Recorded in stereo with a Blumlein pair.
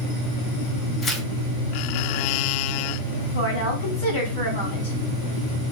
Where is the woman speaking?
65° left, 3 m.